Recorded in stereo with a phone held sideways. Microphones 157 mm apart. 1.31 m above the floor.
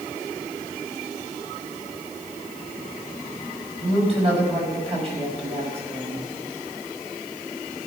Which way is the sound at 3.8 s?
40° right (ahead or behind).